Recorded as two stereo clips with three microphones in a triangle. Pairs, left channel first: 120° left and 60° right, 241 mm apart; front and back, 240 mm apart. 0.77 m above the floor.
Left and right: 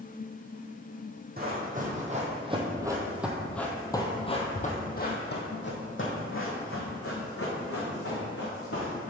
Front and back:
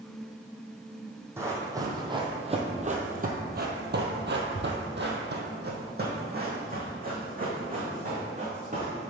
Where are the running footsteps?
100° right, 1.5 m; by 9.1 s 125° left, 3 m.